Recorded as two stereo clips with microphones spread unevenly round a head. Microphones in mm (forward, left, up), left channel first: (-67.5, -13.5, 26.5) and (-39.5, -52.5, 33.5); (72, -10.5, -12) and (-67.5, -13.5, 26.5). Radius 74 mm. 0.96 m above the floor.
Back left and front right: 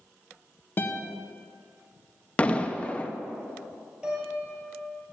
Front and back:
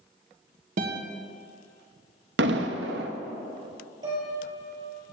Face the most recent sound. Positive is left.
turn(degrees=-120)